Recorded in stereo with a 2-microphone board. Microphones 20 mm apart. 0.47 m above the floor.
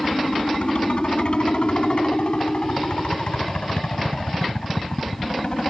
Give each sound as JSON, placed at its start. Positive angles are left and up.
{"t": 0.0, "sound": "a helicopter", "side_deg": 60}